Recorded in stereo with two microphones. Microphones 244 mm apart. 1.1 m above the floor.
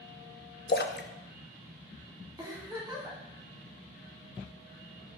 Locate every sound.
0.7 s a splash: 45° left (ahead or behind), 0.5 m
2.4 s a giggle: 15° right (ahead or behind), 1.6 m